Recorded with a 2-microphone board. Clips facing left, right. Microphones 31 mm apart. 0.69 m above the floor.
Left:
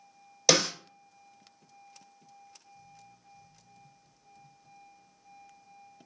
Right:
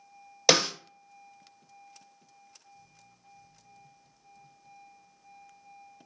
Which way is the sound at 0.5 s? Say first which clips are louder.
Right 2 dB; 20° right (ahead or behind).